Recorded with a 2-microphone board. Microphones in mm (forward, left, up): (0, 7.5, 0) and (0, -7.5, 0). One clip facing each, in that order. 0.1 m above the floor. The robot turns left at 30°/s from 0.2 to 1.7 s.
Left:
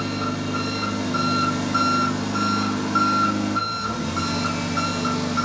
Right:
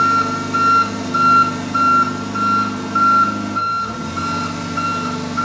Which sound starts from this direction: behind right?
An engine running, at 0.0 s.